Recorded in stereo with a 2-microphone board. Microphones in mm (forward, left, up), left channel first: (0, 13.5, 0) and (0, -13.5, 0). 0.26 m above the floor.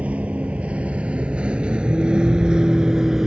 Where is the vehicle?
60° right (ahead or behind); by 3.3 s 20° right (ahead or behind).